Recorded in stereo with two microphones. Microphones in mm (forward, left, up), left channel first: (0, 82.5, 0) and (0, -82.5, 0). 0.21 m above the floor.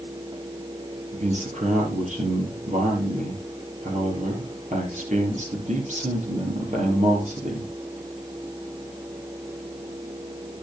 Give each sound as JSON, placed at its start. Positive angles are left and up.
{"t": 1.1, "sound": "a man speaking", "side_deg": -50, "distance_m": 4.5}